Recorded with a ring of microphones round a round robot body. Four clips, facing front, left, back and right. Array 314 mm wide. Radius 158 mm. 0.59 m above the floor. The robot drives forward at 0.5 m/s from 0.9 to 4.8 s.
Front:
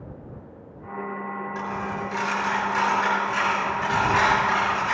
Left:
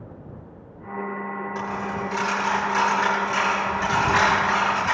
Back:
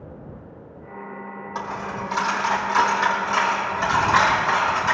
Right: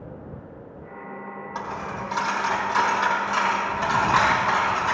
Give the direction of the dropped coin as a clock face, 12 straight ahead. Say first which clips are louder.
Even, back 3 dB; 5 o'clock.